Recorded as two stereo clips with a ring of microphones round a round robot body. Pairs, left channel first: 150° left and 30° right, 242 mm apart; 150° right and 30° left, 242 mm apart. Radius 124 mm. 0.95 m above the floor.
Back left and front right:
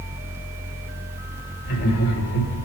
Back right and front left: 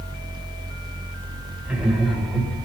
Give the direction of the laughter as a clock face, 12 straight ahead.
8 o'clock.